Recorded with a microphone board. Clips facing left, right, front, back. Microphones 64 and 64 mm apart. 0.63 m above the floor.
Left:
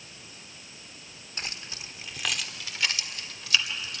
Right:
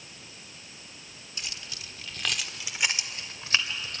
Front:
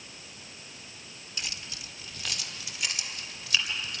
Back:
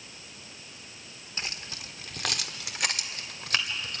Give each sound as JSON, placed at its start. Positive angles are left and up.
{"t": 1.4, "sound": "keys jangling", "azimuth_deg": 130, "distance_m": 1.4}